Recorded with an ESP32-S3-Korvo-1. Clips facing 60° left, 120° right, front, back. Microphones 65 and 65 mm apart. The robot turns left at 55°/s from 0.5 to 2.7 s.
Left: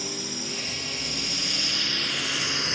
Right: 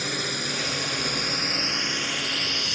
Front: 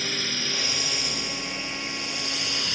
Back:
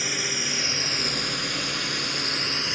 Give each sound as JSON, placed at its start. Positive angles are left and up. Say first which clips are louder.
{"t": 0.0, "sound": "a drone", "louder": "right 5 dB, back 1 dB", "azimuth_deg": -105}